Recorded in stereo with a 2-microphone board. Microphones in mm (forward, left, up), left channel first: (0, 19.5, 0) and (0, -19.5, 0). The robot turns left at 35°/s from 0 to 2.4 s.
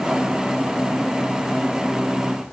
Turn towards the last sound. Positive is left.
No sound to turn to.